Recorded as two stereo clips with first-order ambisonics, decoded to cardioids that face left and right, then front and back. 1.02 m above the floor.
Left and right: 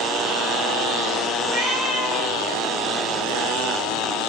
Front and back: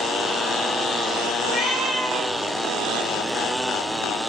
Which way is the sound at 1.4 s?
100° right.